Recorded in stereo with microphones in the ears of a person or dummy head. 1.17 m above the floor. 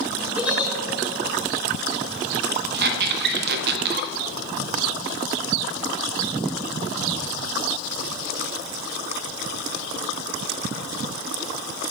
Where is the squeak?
60° right (ahead or behind), 0.5 m.